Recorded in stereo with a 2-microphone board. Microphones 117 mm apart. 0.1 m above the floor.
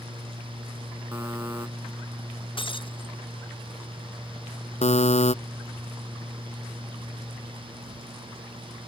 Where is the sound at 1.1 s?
20° right (ahead or behind).